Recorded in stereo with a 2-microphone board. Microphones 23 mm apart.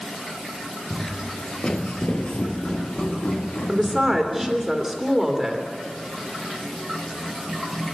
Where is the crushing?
I don't hear crushing.